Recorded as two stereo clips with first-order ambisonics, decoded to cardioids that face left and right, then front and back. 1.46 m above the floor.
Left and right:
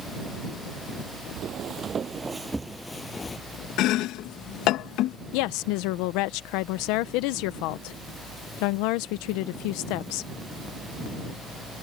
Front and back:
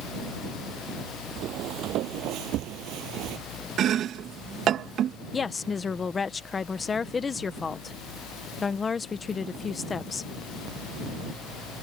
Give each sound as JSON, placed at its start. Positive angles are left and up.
{"t": 1.4, "sound": "footsteps", "azimuth_deg": -140}
{"t": 3.8, "sound": "chopping", "azimuth_deg": 125}
{"t": 5.3, "sound": "a woman speaking", "azimuth_deg": 70}